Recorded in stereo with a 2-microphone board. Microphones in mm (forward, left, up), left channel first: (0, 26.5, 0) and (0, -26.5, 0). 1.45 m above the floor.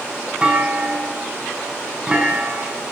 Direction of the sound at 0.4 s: 20° right (ahead or behind).